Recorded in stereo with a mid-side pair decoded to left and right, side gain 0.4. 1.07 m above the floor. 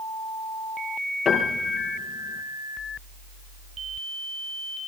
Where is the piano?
55° left, 5.5 m.